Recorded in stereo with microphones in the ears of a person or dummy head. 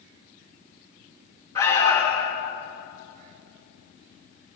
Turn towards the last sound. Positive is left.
turn(degrees=20)  # may be behind; listen again after turning